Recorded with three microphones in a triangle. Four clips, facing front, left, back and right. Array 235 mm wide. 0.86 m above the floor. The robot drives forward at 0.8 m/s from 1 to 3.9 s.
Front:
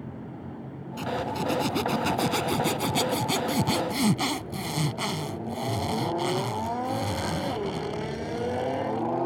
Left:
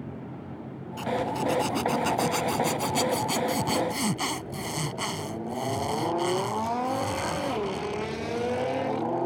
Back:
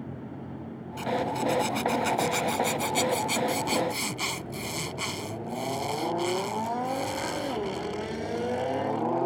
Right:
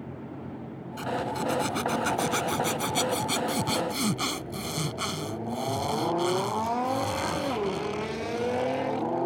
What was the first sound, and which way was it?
A zipper, 5° right.